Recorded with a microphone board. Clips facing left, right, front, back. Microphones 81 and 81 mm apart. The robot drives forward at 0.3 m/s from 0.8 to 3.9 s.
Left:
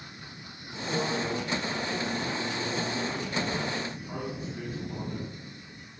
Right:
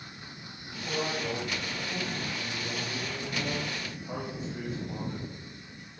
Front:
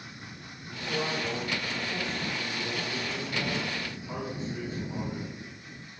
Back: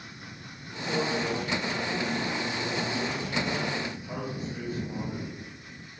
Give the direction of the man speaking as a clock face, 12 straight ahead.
3 o'clock.